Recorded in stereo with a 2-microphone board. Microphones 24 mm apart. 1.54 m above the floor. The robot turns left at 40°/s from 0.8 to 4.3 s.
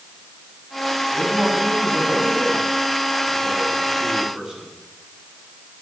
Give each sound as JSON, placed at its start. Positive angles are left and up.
{"t": 1.1, "sound": "a man speaking", "azimuth_deg": -35, "distance_m": 7.5}